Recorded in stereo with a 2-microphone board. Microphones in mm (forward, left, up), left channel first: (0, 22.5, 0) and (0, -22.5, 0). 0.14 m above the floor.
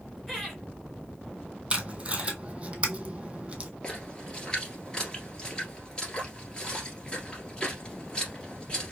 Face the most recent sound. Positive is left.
turn(degrees=20)  # may be behind; listen again after turning